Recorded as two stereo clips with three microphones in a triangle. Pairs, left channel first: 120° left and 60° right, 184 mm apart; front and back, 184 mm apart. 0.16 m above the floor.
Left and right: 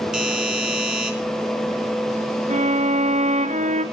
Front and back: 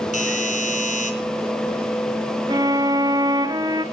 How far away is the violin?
About 1.6 m.